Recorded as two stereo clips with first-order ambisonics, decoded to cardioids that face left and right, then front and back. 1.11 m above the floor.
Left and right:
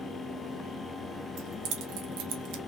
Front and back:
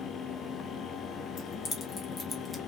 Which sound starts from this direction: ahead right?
Keys jangling, at 1.4 s.